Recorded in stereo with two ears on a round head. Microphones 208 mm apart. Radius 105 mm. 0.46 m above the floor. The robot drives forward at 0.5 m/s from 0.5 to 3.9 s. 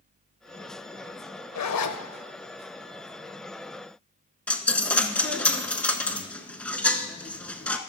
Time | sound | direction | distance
1.6 | a zipper | 80° left | 0.7 m
4.5 | a dropped coin | 5° left (ahead or behind) | 0.6 m